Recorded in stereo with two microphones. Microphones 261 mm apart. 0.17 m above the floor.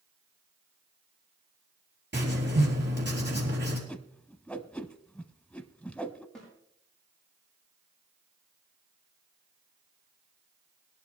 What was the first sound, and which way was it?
Writing, 40° right (ahead or behind).